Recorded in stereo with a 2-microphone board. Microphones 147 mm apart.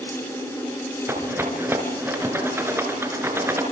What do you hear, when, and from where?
1.1 s a rattle: 15° right (ahead or behind), 4 m